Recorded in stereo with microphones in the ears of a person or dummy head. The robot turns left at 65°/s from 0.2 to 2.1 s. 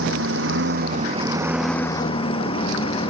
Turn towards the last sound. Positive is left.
turn(degrees=145)